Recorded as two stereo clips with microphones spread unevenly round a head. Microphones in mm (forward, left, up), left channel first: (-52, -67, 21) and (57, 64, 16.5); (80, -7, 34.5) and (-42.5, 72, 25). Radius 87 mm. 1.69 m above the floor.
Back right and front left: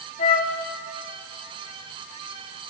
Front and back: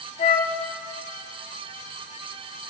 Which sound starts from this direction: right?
A flute, at 0.2 s.